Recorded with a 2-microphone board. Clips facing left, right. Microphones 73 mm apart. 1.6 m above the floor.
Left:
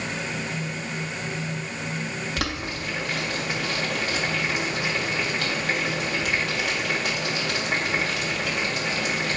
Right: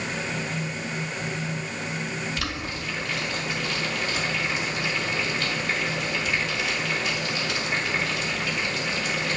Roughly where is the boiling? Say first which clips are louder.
Left 2 dB; left.